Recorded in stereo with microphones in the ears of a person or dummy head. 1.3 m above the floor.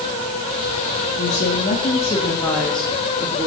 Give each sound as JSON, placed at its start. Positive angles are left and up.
{"t": 1.2, "sound": "a woman speaking", "side_deg": 50, "distance_m": 3.5}